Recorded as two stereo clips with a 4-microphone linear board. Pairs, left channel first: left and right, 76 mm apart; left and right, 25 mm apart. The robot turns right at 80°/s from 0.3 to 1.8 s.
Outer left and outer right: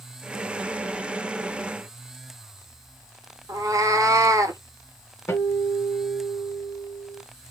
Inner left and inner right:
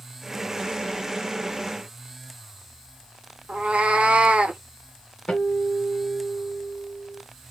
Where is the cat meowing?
55° right (ahead or behind), 0.6 m.